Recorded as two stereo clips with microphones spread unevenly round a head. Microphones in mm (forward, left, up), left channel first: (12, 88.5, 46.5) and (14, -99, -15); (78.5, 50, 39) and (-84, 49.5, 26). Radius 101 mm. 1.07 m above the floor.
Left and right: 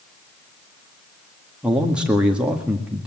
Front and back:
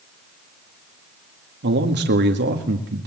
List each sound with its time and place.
1.6 s a man speaking: 170° right, 1.9 m